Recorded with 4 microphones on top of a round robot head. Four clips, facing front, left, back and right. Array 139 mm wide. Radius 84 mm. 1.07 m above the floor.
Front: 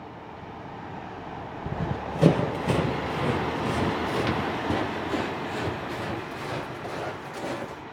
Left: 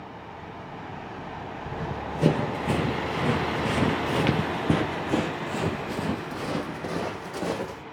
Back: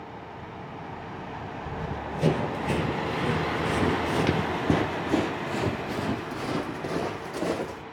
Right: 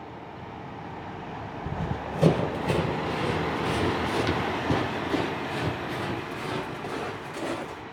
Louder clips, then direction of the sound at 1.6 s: Even, front 4 dB; 15° right.